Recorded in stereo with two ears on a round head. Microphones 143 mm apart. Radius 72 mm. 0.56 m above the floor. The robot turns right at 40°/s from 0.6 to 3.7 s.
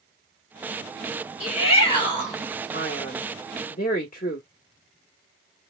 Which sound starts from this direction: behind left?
A shout, at 1.4 s.